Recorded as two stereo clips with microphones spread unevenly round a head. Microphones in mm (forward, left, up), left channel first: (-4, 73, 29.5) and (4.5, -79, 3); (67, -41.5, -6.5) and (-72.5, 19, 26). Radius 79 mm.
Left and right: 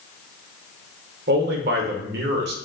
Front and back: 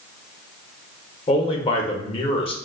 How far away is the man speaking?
About 0.8 m.